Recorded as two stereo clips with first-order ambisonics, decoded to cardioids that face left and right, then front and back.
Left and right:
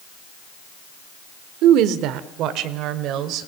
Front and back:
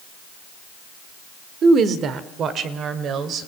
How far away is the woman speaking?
About 1.4 m.